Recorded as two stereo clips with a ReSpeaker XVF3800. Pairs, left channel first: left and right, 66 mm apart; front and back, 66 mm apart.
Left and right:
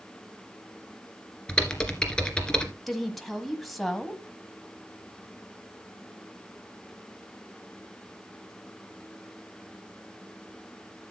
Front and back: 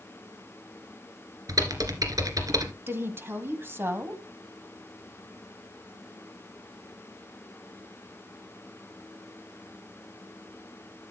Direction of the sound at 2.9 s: Straight behind.